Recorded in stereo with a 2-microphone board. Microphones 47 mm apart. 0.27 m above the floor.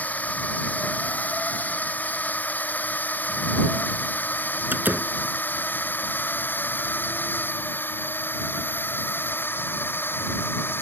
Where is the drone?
35° left (ahead or behind); by 10.8 s 55° left (ahead or behind).